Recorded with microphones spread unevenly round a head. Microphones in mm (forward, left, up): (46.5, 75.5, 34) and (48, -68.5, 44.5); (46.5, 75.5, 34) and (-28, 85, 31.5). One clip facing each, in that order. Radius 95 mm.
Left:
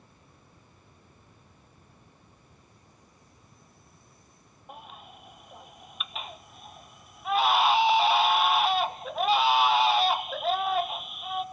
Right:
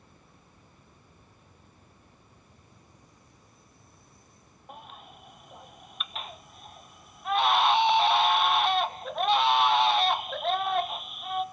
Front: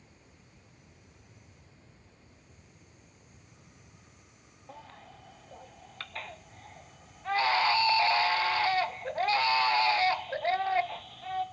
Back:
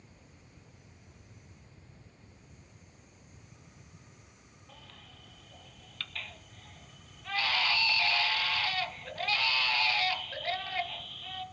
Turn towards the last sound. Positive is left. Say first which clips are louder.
# left 1 dB, front 8 dB
turn(degrees=-5)